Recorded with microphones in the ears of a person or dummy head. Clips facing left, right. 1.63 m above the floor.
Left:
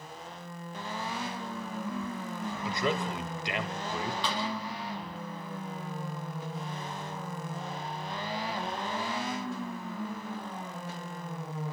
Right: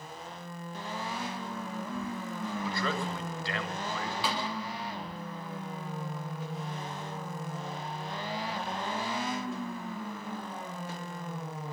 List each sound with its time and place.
2.6 s a man speaking: 20° left (ahead or behind), 1.6 m
4.2 s a snare drum: 5° right (ahead or behind), 3.5 m